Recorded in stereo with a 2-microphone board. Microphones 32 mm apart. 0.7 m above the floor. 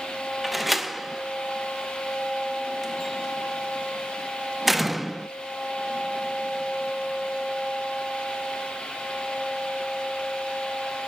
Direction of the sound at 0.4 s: 5° right (ahead or behind).